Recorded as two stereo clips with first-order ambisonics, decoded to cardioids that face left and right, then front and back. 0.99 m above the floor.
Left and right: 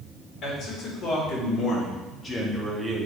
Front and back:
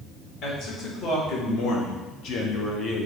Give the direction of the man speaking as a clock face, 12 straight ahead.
11 o'clock.